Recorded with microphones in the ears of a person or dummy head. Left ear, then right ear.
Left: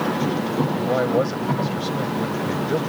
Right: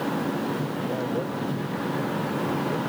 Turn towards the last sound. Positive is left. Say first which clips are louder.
# left 8 dB
turn(degrees=55)  # may be behind; listen again after turning